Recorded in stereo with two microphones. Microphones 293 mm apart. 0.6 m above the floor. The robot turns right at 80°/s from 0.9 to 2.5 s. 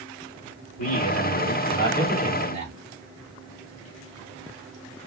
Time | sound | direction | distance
0.8 | a man speaking | 80° left | 1.9 m